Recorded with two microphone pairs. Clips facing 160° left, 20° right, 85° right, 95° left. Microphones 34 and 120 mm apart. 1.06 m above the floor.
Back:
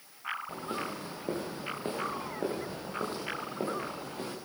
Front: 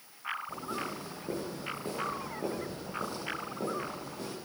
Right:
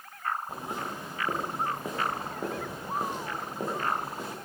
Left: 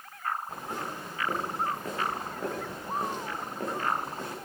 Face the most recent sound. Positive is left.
turn(degrees=-165)